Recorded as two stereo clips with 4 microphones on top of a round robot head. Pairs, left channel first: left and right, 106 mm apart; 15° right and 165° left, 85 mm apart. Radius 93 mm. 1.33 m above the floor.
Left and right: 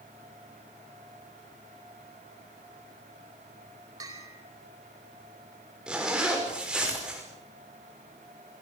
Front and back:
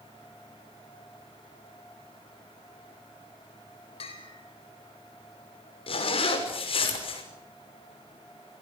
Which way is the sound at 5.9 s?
5° right.